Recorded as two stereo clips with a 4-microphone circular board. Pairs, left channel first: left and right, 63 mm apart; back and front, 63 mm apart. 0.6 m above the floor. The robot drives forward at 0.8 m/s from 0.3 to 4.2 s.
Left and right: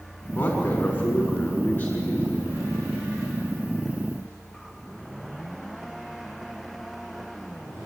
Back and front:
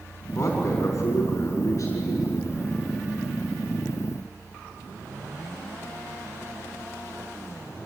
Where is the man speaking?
130° left, 4.5 m; by 2.6 s 145° left, 6 m.